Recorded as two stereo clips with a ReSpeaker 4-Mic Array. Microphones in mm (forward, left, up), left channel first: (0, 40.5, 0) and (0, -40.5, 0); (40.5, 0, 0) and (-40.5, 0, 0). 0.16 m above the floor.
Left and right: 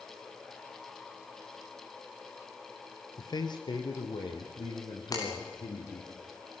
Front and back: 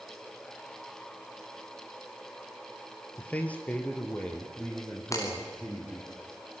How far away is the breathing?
No breathing in this recording.